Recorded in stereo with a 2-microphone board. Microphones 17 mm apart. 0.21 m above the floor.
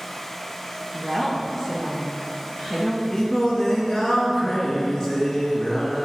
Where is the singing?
35° left (ahead or behind), 3 m.